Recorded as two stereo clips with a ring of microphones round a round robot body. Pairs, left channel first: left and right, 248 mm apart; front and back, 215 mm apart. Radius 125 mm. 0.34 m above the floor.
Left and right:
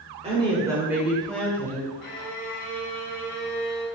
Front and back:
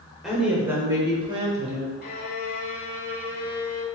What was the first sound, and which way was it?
A woman speaking, 90° right.